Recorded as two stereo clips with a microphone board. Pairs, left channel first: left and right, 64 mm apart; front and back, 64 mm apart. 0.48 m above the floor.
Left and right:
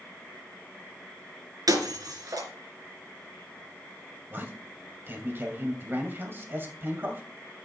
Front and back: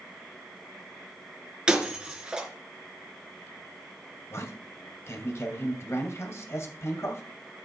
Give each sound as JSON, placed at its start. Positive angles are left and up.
{"t": 1.7, "sound": "breaking glass", "azimuth_deg": -105, "distance_m": 3.0}
{"t": 4.3, "sound": "a man speaking", "azimuth_deg": -40, "distance_m": 2.5}